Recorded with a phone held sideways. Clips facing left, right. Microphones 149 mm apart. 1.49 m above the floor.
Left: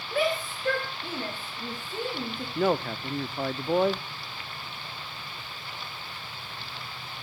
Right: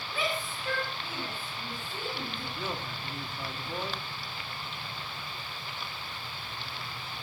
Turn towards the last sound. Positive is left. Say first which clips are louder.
# left 15 dB
turn(degrees=65)  # may be behind; listen again after turning